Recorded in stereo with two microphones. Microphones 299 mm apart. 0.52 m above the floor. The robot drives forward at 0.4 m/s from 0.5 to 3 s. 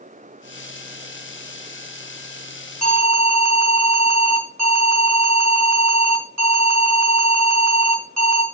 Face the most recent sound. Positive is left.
turn(degrees=-60)  # may be behind; listen again after turning